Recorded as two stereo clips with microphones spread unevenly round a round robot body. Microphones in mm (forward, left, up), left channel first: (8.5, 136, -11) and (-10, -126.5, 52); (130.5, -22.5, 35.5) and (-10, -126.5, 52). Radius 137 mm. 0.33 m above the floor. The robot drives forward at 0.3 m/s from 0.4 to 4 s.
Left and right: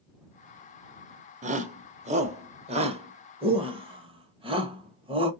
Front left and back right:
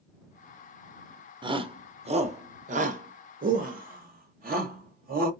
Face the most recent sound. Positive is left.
turn(degrees=-170)